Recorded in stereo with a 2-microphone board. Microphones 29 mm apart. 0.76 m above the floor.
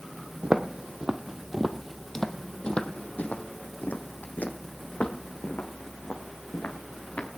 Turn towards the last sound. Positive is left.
turn(degrees=75)  # may be behind; listen again after turning